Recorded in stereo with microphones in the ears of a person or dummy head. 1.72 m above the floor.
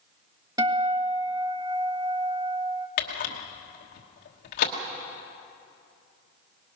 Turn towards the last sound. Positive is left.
turn(degrees=50)  # may be behind; listen again after turning